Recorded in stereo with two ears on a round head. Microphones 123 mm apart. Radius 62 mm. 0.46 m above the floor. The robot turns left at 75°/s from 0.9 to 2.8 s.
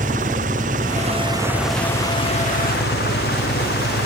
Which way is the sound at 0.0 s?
120° right.